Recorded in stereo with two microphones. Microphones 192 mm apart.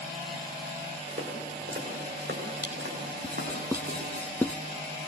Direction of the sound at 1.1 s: 70° right (ahead or behind).